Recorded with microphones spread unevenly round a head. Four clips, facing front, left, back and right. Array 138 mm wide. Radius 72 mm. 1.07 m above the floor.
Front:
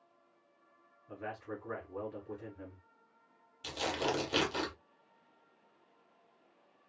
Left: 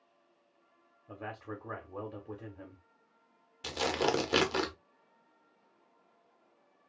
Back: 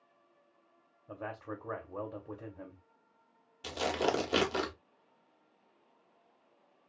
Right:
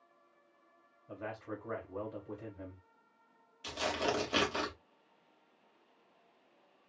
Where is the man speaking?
155° left, 0.9 m.